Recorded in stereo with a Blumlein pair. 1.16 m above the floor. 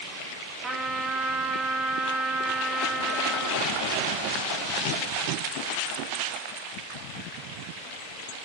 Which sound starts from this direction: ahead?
A trumpet, at 0.6 s.